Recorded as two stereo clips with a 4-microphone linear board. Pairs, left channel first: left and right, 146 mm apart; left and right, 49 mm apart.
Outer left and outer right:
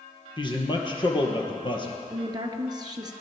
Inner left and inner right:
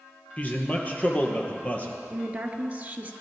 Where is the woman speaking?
30° right (ahead or behind), 1.5 m.